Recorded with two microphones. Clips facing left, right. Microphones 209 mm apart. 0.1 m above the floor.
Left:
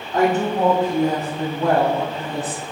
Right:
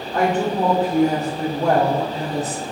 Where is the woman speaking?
10° left (ahead or behind), 2 m; by 2.6 s 45° right (ahead or behind), 2.5 m.